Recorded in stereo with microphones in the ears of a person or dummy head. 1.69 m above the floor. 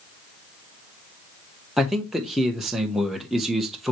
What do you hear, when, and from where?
1.8 s a man speaking: centre (ahead or behind), 1.0 m